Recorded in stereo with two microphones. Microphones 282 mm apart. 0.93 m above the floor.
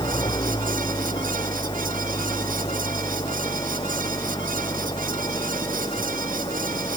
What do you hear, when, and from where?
0.0 s an engine running: 15° left (ahead or behind)